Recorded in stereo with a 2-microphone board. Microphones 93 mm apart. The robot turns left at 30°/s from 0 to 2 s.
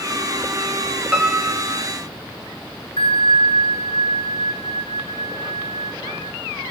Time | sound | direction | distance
1.1 | a piano | 10° right (ahead or behind) | 5.5 m
3.0 | a bell | 80° left | 1.5 m